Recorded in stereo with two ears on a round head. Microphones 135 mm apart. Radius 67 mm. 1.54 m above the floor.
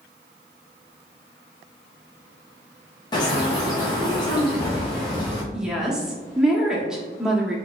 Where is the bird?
30° left (ahead or behind), 0.8 m.